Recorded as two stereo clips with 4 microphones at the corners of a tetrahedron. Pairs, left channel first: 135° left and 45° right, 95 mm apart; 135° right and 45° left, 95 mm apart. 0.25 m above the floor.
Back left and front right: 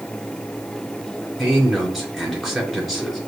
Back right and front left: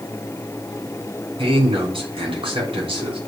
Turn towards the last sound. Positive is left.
turn(degrees=45)